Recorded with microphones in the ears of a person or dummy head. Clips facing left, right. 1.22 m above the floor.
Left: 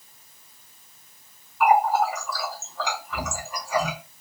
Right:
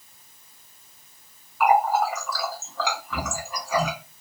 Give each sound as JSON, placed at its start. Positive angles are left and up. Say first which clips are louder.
{"t": 1.6, "sound": "a running tap", "louder": "even", "side_deg": -70, "distance_m": 1.2}